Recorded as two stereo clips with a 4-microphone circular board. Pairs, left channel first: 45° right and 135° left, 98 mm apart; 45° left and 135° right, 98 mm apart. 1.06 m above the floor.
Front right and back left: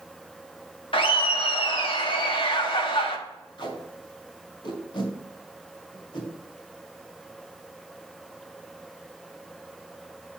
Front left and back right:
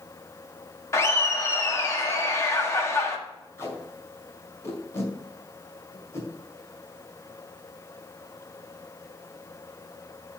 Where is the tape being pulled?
15° right, 2 m.